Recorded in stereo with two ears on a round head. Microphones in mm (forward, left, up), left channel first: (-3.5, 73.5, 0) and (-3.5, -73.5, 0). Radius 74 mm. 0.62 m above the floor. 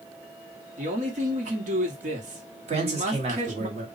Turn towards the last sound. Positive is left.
turn(degrees=-40)  # may be behind; listen again after turning